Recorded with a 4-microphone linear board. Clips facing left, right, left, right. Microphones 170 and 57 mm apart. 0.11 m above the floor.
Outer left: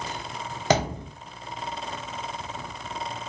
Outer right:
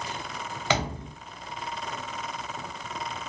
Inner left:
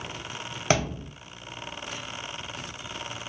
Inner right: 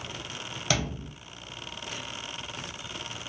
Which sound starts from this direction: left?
A thud, at 0.7 s.